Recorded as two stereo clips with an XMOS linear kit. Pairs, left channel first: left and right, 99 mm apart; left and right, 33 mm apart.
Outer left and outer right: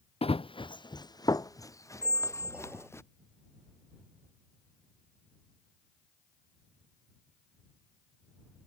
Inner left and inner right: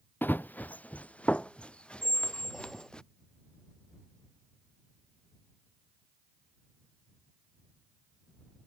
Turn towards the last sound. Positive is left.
turn(degrees=-15)  # may be behind; listen again after turning